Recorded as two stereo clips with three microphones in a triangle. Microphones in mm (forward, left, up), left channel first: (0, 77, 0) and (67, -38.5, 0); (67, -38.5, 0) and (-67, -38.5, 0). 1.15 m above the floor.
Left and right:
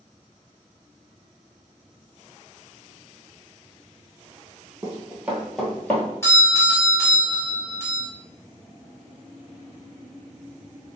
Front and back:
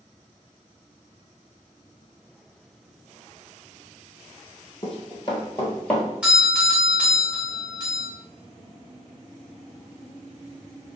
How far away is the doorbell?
About 1.1 m.